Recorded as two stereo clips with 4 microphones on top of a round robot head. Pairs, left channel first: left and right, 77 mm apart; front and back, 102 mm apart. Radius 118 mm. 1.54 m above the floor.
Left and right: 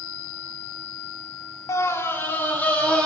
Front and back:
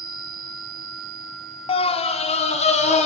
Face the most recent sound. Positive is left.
turn(degrees=15)